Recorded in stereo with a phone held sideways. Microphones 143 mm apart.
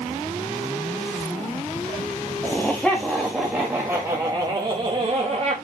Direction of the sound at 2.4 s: 10° left (ahead or behind).